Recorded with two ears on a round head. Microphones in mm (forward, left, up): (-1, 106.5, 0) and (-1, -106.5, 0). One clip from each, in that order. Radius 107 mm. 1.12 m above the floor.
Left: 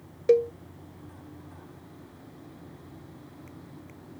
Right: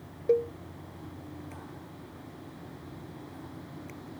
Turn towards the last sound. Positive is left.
turn(degrees=70)  # may be behind; listen again after turning